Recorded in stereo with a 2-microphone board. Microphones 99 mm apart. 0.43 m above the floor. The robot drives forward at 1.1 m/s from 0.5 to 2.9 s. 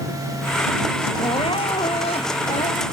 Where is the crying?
65° left (ahead or behind); by 2.8 s 75° left (ahead or behind).